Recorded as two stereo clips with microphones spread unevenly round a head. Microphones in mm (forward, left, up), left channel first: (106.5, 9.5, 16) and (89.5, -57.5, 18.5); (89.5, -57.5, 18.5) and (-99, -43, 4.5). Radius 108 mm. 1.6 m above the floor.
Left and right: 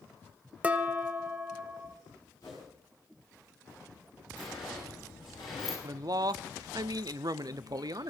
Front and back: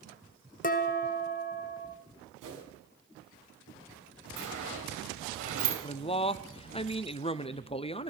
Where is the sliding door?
145° left, 9 m.